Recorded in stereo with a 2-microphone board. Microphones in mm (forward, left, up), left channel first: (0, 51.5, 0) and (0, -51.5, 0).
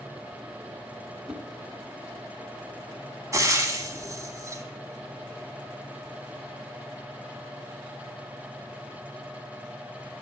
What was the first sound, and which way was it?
A whoosh, 10° right (ahead or behind).